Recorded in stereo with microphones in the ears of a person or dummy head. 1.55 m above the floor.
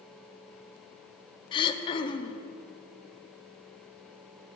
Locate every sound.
1.5 s throat clearing: 30° left (ahead or behind), 1.0 m